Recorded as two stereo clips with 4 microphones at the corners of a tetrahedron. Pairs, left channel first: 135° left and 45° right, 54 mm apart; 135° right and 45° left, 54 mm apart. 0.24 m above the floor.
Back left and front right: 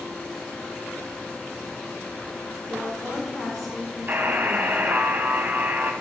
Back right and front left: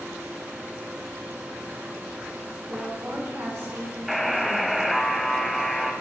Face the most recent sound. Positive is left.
turn(degrees=-40)